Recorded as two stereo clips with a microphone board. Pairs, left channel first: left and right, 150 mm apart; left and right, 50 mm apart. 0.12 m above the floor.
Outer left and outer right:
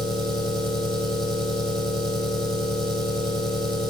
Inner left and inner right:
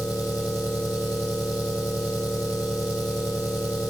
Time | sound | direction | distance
0.0 | an engine running | 30° right (ahead or behind) | 2.5 m